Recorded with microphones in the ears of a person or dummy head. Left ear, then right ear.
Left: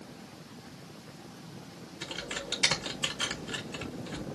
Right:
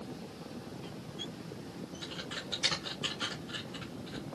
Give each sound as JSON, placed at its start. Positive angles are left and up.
{"t": 2.0, "sound": "typing on a keyboard", "side_deg": 55, "distance_m": 1.3}